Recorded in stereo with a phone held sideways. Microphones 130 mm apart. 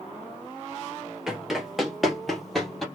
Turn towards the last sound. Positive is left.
turn(degrees=0)  # may be behind; listen again after turning